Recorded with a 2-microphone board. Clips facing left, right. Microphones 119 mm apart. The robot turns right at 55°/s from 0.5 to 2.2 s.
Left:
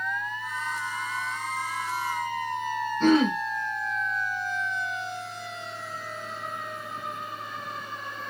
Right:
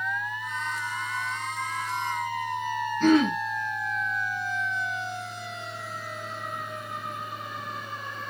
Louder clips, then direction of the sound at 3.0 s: Even; 30° left (ahead or behind).